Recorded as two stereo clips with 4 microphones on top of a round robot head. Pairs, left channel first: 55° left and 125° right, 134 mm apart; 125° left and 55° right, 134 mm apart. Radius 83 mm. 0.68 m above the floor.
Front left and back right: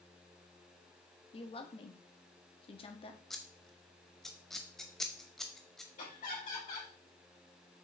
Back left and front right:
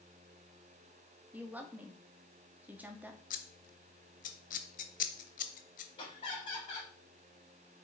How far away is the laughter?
About 4 m.